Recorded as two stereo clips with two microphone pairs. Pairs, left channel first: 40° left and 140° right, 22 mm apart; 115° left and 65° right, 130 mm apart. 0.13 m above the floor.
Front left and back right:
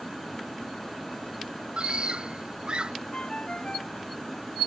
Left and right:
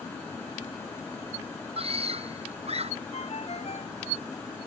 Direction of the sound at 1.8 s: 100° right.